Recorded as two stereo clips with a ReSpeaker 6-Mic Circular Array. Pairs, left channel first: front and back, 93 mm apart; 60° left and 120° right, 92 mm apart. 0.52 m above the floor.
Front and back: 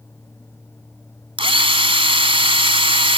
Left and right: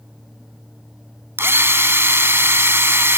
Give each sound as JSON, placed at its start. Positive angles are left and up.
{"t": 1.4, "sound": "a drill", "azimuth_deg": 180}